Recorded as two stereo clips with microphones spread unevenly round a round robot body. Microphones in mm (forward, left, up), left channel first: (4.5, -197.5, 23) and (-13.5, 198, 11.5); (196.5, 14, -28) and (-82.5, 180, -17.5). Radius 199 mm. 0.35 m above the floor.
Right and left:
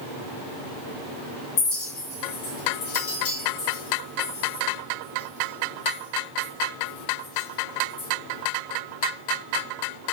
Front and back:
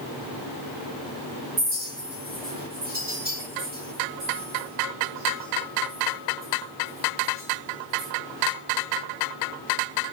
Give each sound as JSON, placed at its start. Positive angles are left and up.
{"t": 1.6, "sound": "a clink", "azimuth_deg": -145, "distance_m": 1.7}